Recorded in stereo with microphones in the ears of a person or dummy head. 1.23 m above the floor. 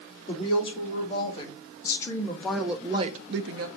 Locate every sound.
0.3 s a woman speaking: 35° left (ahead or behind), 2.5 m; by 3.7 s 80° right, 0.7 m